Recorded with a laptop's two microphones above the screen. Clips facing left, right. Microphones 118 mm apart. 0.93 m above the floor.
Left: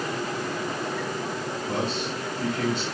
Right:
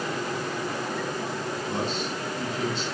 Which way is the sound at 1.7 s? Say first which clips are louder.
Left 2 dB; 55° left (ahead or behind).